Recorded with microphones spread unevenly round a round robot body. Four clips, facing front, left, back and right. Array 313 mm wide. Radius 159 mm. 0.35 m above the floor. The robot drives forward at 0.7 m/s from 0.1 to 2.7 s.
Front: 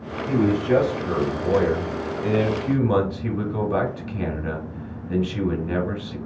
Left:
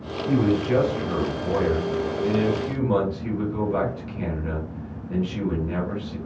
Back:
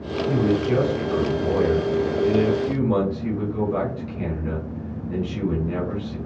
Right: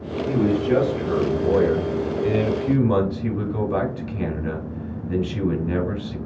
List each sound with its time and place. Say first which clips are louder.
0.3 s a man speaking: right 1 dB, front 1 dB; 35° right, 3 m; by 6.2 s 70° right, 2 m